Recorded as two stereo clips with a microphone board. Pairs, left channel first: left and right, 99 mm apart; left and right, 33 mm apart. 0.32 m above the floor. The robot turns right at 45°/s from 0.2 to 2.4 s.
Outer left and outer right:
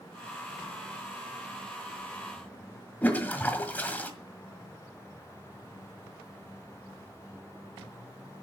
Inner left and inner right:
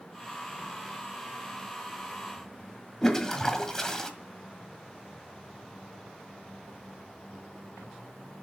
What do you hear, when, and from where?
3.0 s a toilet flushing: 15° left (ahead or behind), 1.6 m